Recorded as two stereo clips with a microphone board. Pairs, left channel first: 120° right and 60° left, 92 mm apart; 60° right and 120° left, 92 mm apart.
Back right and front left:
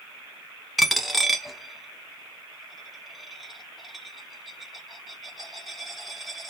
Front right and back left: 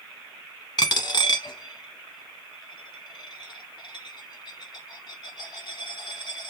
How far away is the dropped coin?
About 0.5 m.